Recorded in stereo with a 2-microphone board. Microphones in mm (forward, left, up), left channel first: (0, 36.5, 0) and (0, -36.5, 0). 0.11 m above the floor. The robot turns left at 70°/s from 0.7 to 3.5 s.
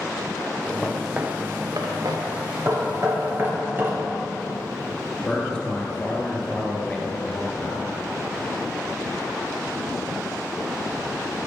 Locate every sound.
0.8 s footsteps: 25° left (ahead or behind), 1.1 m; by 2.2 s 80° right, 2.5 m
2.6 s knocking: 45° right (ahead or behind), 2 m; by 3.9 s 30° right (ahead or behind), 2 m
5.2 s a man speaking: 10° left (ahead or behind), 2.0 m